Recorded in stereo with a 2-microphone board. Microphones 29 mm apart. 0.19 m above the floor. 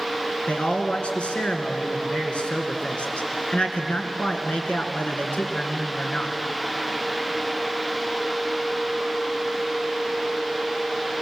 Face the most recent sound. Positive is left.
turn(degrees=40)  # may be behind; listen again after turning